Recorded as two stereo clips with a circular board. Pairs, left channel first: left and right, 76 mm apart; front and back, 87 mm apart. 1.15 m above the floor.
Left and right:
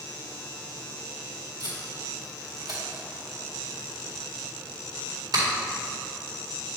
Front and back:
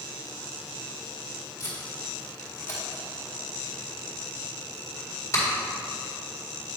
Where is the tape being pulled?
55° right, 2.0 m.